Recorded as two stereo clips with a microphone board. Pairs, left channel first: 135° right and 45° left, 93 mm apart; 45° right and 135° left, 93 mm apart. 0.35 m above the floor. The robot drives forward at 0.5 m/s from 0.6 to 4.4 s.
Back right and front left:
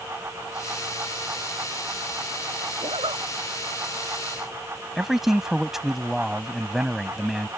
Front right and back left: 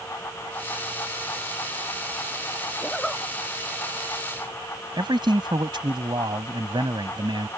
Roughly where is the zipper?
Ahead left.